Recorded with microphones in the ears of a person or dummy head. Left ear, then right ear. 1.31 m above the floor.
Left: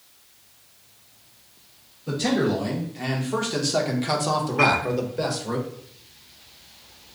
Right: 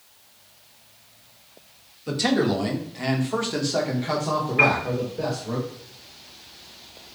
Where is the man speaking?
40° right (ahead or behind), 1.5 m; by 5.6 s 55° left (ahead or behind), 1.5 m.